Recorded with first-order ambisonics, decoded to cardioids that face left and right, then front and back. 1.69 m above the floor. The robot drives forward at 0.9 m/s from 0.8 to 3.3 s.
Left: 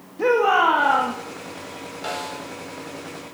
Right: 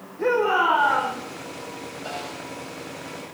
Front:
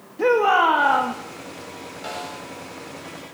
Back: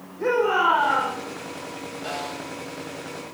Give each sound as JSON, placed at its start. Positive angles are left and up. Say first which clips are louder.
{"t": 0.2, "sound": "a shout", "louder": "left 3 dB, front 4 dB", "azimuth_deg": 35, "distance_m": 2.5}
{"t": 2.0, "sound": "a snare drum", "louder": "left 5 dB, back 1 dB", "azimuth_deg": 75, "distance_m": 6.5}